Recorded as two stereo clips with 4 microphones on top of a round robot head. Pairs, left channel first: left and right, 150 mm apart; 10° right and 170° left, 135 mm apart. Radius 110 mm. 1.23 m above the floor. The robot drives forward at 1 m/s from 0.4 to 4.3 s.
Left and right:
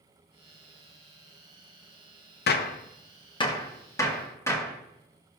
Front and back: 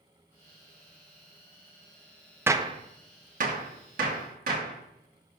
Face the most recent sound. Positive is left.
turn(degrees=165)